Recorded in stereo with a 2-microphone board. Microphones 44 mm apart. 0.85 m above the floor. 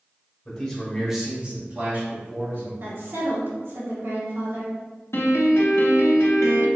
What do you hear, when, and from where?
0.5 s a man speaking: 20° left (ahead or behind), 1.6 m; by 2.7 s 65° right (ahead or behind), 2 m
2.8 s a woman speaking: 65° right (ahead or behind), 1.8 m
5.1 s a piano: 80° left, 0.7 m